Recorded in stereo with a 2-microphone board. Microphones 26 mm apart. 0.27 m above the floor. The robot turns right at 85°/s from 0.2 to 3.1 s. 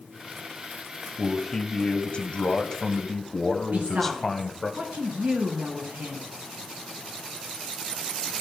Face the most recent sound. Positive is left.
turn(degrees=-70)  # may be behind; listen again after turning